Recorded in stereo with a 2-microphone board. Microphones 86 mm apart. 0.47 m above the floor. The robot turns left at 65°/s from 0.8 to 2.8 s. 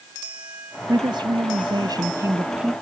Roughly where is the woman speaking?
Ahead right.